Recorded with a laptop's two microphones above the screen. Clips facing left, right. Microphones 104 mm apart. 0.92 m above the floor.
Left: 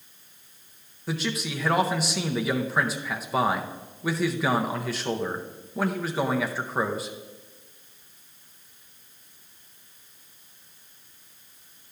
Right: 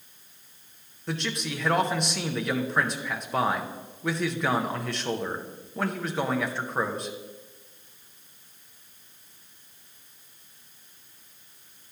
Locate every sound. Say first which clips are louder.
1.1 s a man speaking: left 2 dB; 5° left (ahead or behind), 0.5 m